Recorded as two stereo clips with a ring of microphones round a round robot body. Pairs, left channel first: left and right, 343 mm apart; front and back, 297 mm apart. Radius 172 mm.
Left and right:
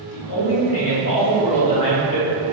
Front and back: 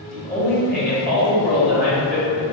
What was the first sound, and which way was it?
A man speaking, 50° left.